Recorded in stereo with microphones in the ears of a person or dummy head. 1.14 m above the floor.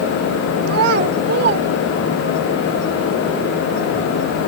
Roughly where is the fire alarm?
No fire alarm in this recording.